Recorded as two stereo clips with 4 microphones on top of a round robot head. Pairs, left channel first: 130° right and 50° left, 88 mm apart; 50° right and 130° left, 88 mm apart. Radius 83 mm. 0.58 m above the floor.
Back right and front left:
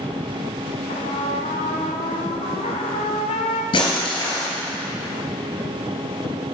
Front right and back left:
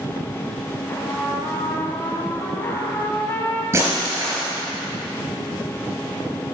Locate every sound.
0.9 s a trumpet: 115° right, 1.2 m
3.7 s breaking glass: 165° right, 3.5 m